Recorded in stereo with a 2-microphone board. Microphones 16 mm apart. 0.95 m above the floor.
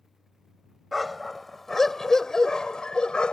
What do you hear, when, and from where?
0.9 s a dog barking: centre (ahead or behind); by 3.3 s 65° left (ahead or behind)